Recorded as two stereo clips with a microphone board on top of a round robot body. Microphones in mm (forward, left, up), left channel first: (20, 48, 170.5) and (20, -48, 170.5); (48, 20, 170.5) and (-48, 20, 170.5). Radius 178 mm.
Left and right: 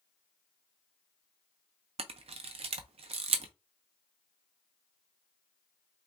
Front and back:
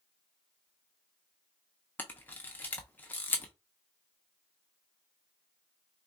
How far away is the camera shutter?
About 0.5 m.